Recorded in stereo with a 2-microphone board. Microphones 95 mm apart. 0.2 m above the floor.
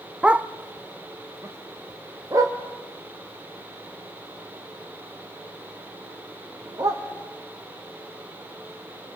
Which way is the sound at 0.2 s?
10° right (ahead or behind).